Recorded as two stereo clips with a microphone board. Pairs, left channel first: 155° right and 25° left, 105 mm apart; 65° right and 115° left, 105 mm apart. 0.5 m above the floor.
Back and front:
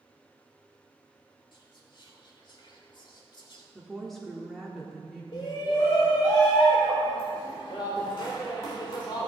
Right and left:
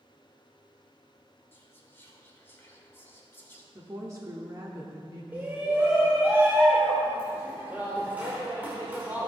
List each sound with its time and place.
1.5 s whispering: 130° right, 1.8 m
3.8 s a woman speaking: 115° left, 1.1 m
5.3 s a shout: straight behind, 1.3 m